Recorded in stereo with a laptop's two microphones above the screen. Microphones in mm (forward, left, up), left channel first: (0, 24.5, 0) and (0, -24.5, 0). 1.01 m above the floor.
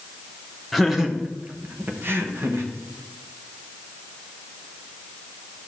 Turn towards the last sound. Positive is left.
turn(degrees=-60)  # may be behind; listen again after turning